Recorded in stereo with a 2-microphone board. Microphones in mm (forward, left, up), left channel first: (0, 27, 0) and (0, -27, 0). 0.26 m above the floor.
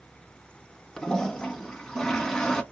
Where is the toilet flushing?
10° left (ahead or behind), 1.1 m.